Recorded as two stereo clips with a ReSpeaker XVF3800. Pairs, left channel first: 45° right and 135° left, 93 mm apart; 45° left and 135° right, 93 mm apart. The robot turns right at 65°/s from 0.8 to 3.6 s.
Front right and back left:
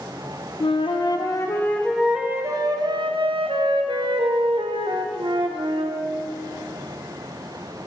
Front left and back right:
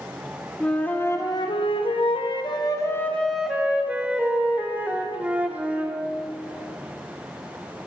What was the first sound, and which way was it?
A flute, 30° right.